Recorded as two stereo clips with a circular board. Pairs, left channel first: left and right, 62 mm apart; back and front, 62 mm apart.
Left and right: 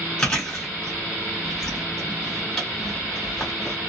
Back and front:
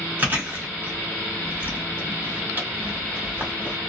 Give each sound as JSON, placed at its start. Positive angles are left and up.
{"t": 0.2, "sound": "chewing", "azimuth_deg": 20, "distance_m": 1.7}